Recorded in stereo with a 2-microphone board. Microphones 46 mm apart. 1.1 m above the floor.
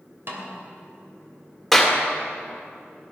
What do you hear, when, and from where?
0.3 s a snare drum: 55° right (ahead or behind), 3 m
1.7 s a clap: centre (ahead or behind), 2.5 m